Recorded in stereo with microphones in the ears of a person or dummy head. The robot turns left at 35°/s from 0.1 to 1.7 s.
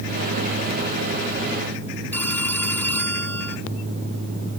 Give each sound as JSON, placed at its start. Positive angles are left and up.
{"t": 2.1, "sound": "a phone ringing", "side_deg": 10}